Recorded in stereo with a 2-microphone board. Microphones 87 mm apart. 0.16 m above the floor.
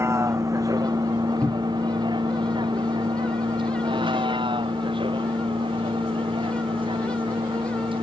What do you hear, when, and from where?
0.0 s a vehicle: 30° right (ahead or behind); by 8.0 s 80° right
1.4 s a cupboard door: 20° left (ahead or behind)